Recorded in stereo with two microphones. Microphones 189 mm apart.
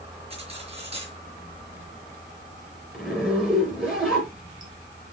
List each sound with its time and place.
0.3 s cutlery clinking: 30° right (ahead or behind), 4.5 m
2.9 s a zipper: 5° right (ahead or behind), 6 m